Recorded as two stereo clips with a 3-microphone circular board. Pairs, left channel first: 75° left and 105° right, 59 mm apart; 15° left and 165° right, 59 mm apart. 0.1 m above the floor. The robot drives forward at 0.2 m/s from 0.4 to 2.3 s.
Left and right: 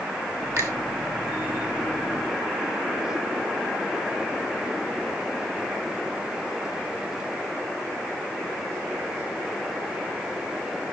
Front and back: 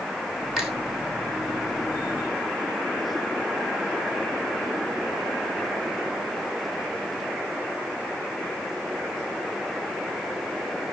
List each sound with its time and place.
0.6 s a finger snap: 75° right, 2.5 m; by 0.7 s 80° right, 2.5 m